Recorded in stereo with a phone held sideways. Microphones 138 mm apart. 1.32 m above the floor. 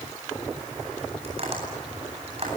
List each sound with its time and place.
1.2 s tapping: 45° right (ahead or behind), 9.5 m